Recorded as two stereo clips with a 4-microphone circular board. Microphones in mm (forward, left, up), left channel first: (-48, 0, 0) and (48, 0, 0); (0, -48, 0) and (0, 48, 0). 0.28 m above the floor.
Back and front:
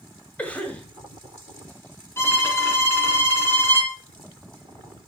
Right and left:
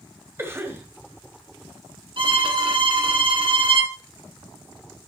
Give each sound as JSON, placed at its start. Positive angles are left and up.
{"t": 0.4, "sound": "a cough", "azimuth_deg": 120, "distance_m": 1.6}
{"t": 2.2, "sound": "a violin", "azimuth_deg": 120, "distance_m": 2.5}